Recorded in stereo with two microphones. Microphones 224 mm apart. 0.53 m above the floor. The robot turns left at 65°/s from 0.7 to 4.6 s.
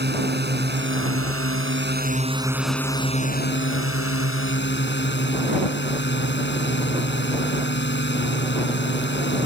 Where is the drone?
50° right; by 9.5 s 55° left.